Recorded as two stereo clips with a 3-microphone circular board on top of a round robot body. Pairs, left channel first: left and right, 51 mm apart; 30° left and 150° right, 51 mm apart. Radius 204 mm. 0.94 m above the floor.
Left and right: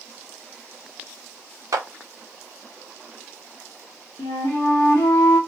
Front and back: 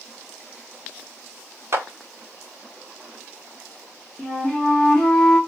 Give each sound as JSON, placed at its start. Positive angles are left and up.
{"t": 1.7, "sound": "a clap", "azimuth_deg": -110, "distance_m": 0.6}
{"t": 4.2, "sound": "a flute", "azimuth_deg": 110, "distance_m": 1.0}